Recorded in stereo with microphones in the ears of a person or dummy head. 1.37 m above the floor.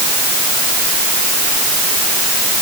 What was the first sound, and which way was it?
Only background noise.